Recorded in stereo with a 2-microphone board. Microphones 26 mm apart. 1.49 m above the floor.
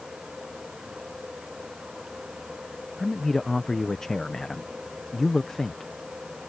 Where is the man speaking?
15° left (ahead or behind).